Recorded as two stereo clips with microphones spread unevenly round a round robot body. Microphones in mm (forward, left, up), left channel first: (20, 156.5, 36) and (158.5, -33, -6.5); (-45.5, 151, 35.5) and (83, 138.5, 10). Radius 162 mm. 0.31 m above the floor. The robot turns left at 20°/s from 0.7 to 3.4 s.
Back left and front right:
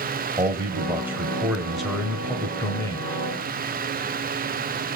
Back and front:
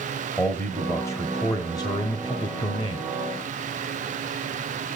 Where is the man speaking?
105° right, 1.3 m; by 3.1 s 155° right, 1.3 m.